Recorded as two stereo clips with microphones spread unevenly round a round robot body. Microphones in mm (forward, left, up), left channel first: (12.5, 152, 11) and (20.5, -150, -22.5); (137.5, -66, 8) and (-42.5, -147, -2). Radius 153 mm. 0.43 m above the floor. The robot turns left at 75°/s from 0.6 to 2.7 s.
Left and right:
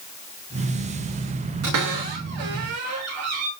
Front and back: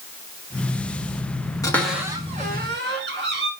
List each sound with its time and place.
1.6 s a cupboard door: 50° right, 6 m; by 3.5 s 130° right, 6 m